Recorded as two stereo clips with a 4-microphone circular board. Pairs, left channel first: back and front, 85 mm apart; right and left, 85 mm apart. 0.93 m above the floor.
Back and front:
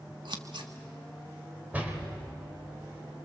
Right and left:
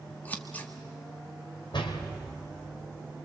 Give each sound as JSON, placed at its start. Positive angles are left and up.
{"t": 0.2, "sound": "scissors", "azimuth_deg": -20, "distance_m": 1.6}
{"t": 1.7, "sound": "a door slam", "azimuth_deg": -70, "distance_m": 3.0}